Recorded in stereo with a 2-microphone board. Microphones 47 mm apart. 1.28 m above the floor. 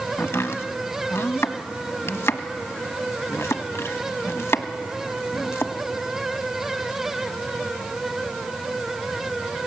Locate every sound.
0.2 s chopping: 75° left (ahead or behind), 1.1 m